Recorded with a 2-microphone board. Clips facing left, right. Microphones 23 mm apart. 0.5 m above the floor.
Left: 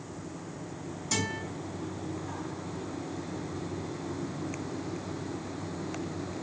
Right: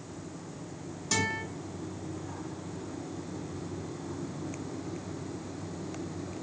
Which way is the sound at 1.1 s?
20° right (ahead or behind).